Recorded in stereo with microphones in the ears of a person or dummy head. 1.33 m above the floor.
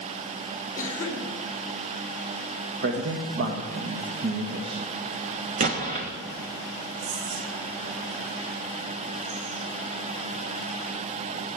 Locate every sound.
0.8 s a cough: 15° left (ahead or behind), 3.5 m
2.8 s a man speaking: 50° right (ahead or behind), 1.6 m
5.6 s an explosion: 35° right (ahead or behind), 1.4 m
7.0 s whispering: 75° right (ahead or behind), 5.5 m